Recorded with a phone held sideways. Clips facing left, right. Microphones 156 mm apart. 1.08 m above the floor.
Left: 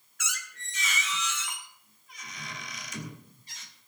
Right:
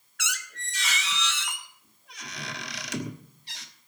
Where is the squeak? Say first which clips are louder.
Right 3 dB; 80° right, 1.2 m.